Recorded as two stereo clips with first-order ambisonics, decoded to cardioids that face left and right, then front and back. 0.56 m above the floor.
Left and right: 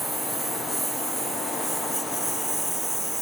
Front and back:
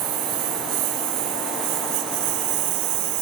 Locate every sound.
0.0 s a lawn mower: 170° right